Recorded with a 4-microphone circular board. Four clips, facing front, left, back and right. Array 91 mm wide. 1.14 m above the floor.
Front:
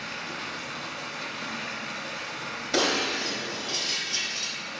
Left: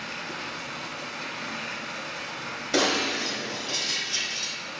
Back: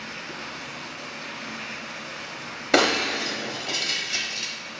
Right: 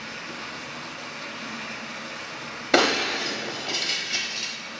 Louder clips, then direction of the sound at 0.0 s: Left 1 dB, front 1 dB; 45° left.